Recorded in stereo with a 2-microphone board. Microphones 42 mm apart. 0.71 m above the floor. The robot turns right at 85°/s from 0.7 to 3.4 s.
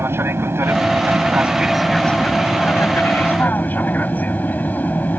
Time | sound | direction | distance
0.0 | an aircraft | 95° right | ?